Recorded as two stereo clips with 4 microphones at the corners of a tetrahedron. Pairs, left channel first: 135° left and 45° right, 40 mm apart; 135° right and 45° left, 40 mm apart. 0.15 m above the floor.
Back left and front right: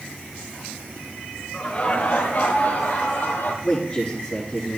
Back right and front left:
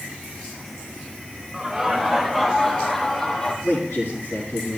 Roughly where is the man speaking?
Behind right.